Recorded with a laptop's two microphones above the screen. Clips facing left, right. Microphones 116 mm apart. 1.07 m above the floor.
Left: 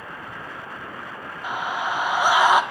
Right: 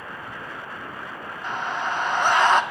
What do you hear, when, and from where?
1.4 s a scream: 10° left (ahead or behind), 0.9 m